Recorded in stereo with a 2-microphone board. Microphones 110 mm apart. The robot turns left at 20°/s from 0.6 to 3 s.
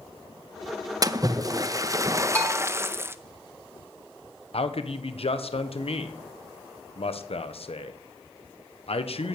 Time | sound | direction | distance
1.0 | a splash | 100° right | 0.6 m
2.4 | a bell | 15° left (ahead or behind) | 2.5 m
4.5 | a man speaking | 65° left (ahead or behind) | 1.1 m